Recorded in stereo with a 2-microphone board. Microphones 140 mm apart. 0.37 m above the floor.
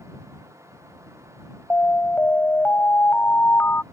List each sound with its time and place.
1.7 s an alarm: 15° left (ahead or behind)